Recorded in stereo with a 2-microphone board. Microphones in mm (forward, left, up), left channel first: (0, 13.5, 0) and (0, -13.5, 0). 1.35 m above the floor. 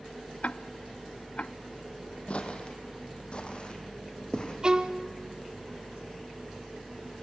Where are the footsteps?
45° left (ahead or behind), 2.5 m; by 4.5 s 35° left (ahead or behind), 4 m.